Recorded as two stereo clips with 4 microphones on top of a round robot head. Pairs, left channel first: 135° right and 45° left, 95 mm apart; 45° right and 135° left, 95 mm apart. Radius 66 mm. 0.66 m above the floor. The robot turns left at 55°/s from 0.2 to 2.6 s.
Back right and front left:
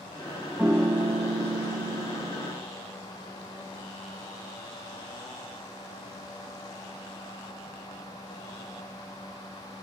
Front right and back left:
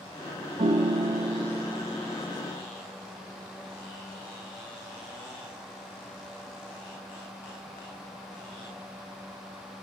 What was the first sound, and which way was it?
A piano, 120° left.